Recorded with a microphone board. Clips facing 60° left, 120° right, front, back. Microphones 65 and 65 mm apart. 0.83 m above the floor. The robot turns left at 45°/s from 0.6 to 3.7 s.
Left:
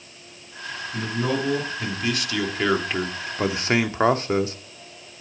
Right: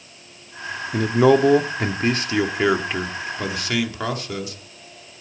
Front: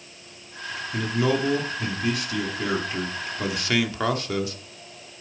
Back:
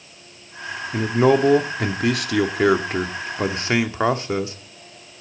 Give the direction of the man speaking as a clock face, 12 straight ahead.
4 o'clock.